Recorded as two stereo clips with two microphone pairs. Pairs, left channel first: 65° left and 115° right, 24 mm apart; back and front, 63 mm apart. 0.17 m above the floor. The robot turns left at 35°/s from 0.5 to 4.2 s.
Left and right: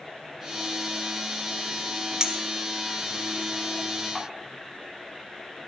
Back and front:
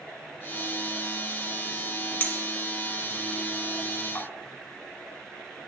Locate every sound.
2.2 s a clink: 140° right, 1.1 m; by 4.3 s 150° left, 1.1 m